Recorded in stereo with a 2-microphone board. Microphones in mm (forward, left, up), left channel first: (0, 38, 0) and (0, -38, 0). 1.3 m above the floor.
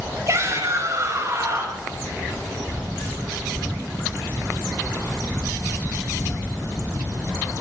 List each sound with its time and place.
0.3 s a shout: 45° right (ahead or behind), 5.5 m